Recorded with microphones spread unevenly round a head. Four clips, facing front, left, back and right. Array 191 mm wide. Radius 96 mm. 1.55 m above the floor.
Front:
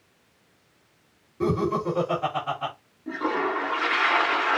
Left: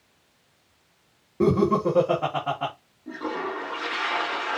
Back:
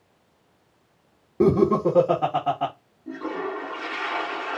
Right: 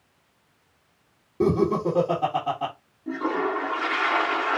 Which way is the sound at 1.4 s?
Straight behind.